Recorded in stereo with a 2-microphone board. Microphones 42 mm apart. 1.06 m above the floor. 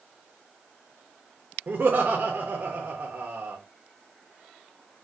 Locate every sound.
1.7 s laughter: 45° right (ahead or behind), 0.6 m